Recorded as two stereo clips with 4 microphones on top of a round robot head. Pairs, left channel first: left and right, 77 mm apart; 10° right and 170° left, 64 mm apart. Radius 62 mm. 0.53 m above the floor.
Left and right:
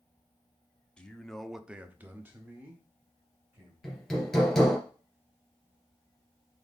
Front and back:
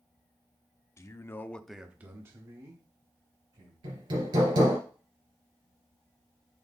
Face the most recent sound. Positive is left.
turn(degrees=175)